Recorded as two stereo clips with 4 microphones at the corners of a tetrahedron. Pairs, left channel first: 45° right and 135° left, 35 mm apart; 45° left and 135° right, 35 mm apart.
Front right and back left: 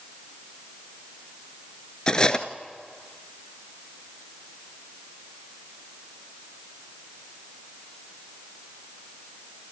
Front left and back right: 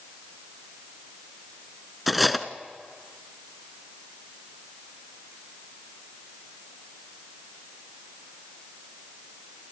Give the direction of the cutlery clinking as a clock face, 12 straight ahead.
2 o'clock.